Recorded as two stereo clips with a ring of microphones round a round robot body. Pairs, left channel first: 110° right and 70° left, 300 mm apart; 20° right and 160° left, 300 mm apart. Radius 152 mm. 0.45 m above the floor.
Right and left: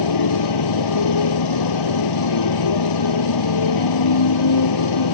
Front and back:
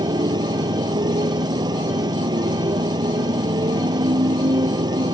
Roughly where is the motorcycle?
Behind right.